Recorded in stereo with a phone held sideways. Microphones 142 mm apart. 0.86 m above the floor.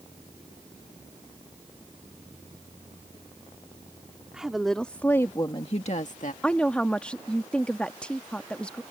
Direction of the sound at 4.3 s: 5° right (ahead or behind).